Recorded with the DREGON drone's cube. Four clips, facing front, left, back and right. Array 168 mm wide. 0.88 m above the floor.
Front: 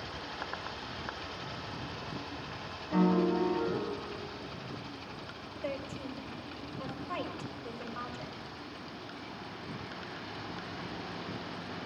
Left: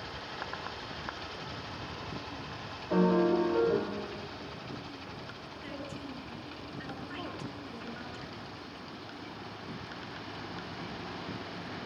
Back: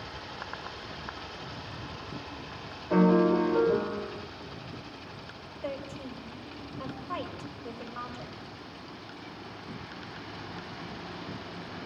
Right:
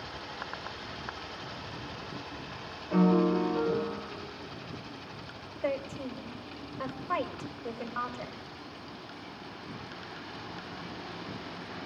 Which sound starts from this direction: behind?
A piano, at 2.9 s.